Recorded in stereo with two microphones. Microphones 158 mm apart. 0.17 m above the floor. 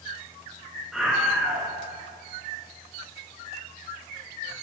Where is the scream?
5° right (ahead or behind), 1.8 m.